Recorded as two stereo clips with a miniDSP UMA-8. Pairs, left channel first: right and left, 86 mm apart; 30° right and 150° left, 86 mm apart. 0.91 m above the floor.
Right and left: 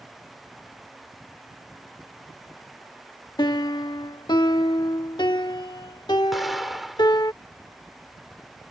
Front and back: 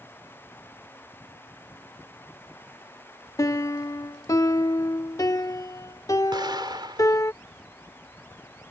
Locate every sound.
3.4 s a piano: 75° right
6.3 s an explosion: straight behind